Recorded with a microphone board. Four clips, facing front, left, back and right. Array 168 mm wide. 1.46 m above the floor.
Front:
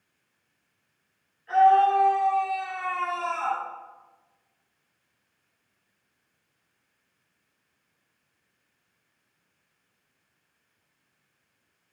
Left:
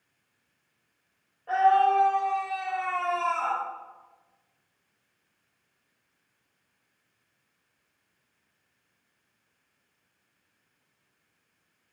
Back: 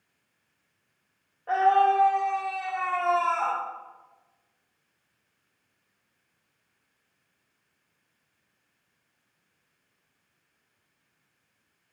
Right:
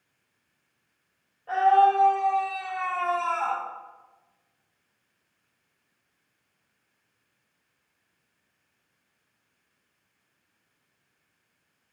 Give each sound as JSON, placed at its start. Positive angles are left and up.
{"t": 1.5, "sound": "a scream", "azimuth_deg": 175, "distance_m": 3.0}